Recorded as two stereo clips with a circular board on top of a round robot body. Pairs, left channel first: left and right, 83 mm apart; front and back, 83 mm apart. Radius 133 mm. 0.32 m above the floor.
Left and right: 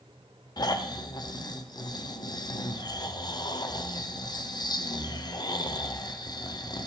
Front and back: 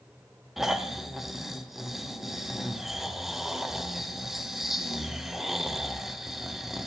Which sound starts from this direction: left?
Snoring, at 0.6 s.